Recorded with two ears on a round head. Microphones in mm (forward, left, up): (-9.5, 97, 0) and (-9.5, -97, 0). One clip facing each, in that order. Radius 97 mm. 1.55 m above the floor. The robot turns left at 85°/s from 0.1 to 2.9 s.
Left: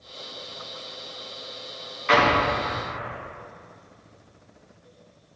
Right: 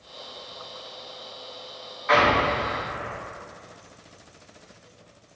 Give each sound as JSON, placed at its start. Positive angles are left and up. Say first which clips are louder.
{"t": 2.1, "sound": "an explosion", "louder": "even", "side_deg": 40, "distance_m": 1.1}